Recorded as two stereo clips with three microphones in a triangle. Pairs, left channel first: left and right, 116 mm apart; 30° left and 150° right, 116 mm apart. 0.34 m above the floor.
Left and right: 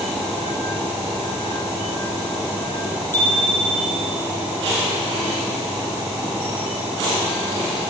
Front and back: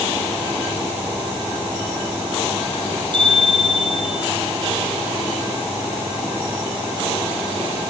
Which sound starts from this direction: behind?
A bicycle bell, at 3.1 s.